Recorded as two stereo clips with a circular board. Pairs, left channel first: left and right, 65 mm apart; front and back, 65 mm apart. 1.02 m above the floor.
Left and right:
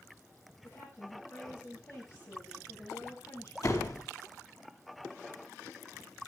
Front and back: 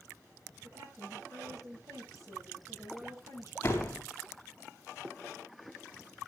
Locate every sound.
0.6 s a woman speaking: 140° left, 7.5 m
3.6 s a door slam: 60° left, 4 m